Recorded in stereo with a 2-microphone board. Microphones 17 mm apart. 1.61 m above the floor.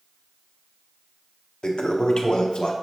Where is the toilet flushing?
70° left (ahead or behind), 0.5 m.